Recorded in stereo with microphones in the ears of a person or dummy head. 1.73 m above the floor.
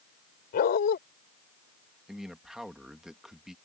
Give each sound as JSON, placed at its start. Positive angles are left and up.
{"t": 0.5, "sound": "a dog barking", "side_deg": 50}
{"t": 2.1, "sound": "a man speaking", "side_deg": -5}